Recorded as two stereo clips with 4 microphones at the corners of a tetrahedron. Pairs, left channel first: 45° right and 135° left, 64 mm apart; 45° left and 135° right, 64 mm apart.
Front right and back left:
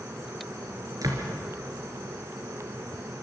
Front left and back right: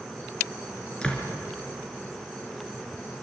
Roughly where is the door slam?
Behind left.